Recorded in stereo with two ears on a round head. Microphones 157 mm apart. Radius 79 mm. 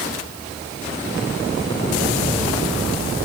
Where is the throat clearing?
I don't hear throat clearing.